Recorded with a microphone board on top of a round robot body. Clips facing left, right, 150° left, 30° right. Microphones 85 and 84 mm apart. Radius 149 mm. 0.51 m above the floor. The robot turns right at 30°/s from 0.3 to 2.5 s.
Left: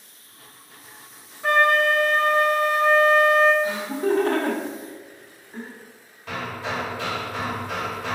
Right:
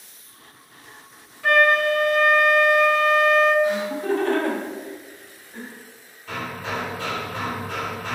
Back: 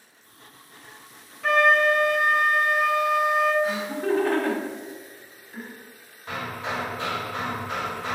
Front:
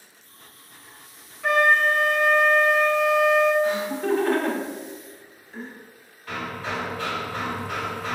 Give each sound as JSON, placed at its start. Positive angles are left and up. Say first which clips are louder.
{"t": 1.4, "sound": "a flute", "louder": "right 1 dB, even", "azimuth_deg": 50, "distance_m": 0.8}
{"t": 3.6, "sound": "laughter", "louder": "right 1 dB, front 2 dB", "azimuth_deg": 65, "distance_m": 1.6}
{"t": 6.3, "sound": "hammering", "louder": "even, even", "azimuth_deg": 80, "distance_m": 0.7}